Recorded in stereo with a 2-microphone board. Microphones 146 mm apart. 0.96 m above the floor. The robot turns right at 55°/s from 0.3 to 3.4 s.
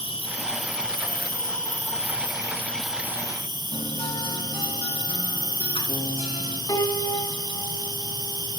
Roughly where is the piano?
Left.